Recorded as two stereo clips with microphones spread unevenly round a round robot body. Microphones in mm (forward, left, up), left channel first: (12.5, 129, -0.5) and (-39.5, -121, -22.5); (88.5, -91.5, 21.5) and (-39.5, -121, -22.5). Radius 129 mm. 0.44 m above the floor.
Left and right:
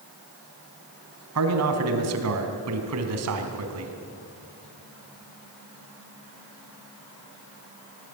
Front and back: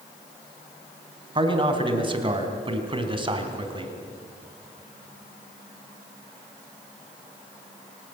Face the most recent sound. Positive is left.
turn(degrees=-125)